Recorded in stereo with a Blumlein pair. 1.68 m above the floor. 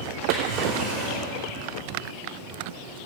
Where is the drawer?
45° right, 3 m.